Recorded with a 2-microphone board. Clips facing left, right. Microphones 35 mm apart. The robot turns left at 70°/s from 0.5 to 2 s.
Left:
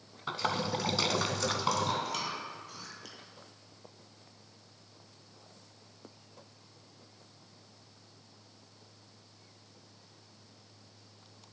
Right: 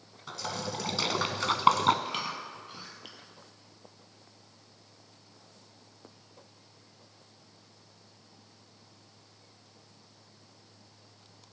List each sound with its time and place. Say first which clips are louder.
0.3 s a splash: left 4 dB; 35° left (ahead or behind), 0.7 m; by 1.9 s 65° right (ahead or behind), 0.7 m
2.0 s chewing: right 1 dB; 35° right (ahead or behind), 1.6 m